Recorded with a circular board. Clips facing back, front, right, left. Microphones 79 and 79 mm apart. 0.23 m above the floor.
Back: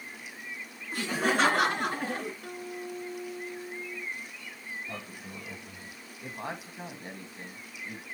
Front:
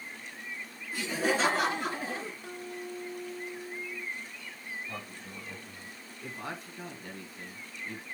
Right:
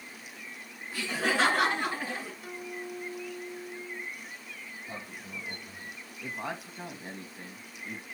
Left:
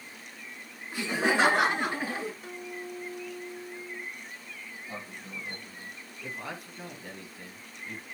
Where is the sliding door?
160° right, 8 m.